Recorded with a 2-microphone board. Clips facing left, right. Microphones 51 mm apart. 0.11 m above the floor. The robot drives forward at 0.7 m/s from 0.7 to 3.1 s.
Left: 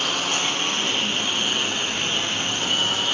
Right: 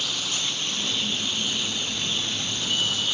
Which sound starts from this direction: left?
A lawn mower, at 0.0 s.